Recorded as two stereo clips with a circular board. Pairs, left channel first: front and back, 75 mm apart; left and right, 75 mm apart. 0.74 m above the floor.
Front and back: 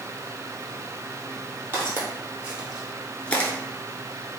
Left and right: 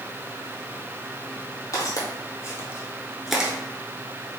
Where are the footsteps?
120° left, 1.5 m; by 3.5 s 30° right, 0.7 m.